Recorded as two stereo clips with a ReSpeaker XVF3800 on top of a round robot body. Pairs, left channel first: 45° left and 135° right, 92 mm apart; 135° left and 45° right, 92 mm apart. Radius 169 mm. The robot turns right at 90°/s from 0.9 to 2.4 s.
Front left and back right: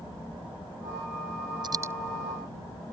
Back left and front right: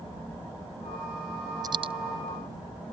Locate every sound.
1.6 s a dropped coin: 95° right; by 1.9 s 65° right